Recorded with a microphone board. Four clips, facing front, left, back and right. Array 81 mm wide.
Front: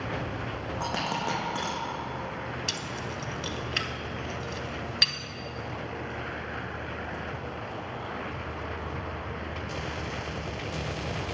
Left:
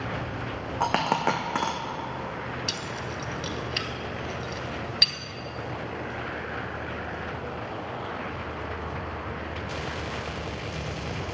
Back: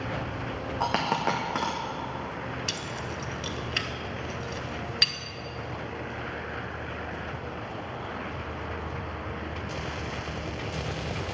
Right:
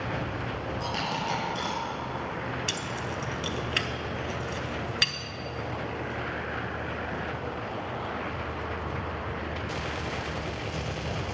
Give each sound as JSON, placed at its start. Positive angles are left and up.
{"t": 0.8, "sound": "a dropped coin", "azimuth_deg": 110, "distance_m": 1.5}
{"t": 2.7, "sound": "keys jangling", "azimuth_deg": -90, "distance_m": 0.7}